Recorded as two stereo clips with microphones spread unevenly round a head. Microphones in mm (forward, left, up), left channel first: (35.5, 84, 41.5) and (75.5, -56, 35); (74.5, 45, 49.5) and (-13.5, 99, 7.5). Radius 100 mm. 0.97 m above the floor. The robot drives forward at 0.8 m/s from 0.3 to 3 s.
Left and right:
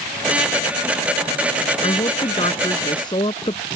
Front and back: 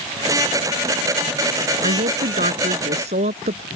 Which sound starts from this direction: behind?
A woman speaking, at 1.8 s.